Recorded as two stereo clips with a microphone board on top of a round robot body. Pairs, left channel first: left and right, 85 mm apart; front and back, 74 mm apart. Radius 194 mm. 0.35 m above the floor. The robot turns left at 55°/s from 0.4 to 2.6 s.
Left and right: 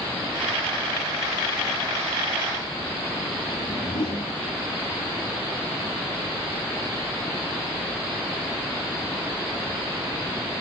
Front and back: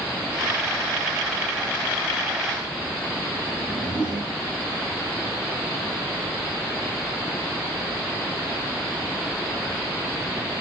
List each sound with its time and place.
3.5 s a whoosh: 105° left, 5.5 m